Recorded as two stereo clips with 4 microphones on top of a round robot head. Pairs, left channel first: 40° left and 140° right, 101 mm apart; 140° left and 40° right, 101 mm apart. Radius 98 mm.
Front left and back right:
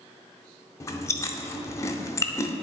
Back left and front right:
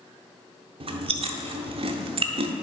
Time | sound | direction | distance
0.8 | chewing | 20° right | 0.7 m